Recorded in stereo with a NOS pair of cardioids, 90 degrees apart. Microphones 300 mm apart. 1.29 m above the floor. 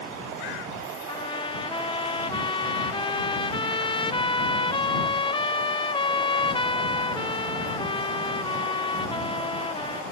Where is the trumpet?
15° left.